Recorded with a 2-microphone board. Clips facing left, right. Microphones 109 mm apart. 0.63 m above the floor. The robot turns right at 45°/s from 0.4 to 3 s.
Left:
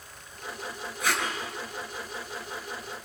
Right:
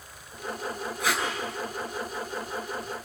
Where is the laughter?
No laughter in this recording.